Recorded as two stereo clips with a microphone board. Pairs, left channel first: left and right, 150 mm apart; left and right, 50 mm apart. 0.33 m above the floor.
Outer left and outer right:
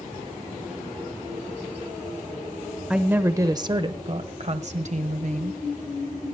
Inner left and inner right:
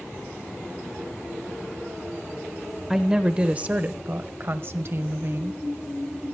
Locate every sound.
2.9 s a woman speaking: 5° right (ahead or behind), 0.9 m; by 5.6 s 55° right (ahead or behind), 1.7 m